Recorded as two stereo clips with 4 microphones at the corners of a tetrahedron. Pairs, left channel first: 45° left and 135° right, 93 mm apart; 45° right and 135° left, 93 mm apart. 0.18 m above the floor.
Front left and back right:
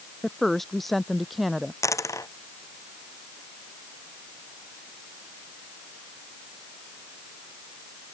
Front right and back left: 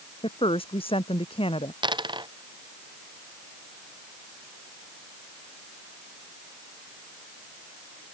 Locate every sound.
0.2 s a woman speaking: 40° right; by 1.7 s 45° right
1.8 s a dropped coin: 100° left